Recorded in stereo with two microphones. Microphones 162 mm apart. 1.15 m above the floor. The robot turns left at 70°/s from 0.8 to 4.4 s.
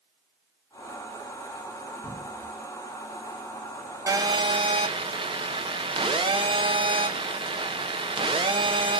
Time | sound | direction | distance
2.0 | a cupboard door | 40° left (ahead or behind) | 3 m
4.1 | a phone buzzing | 20° right (ahead or behind) | 0.7 m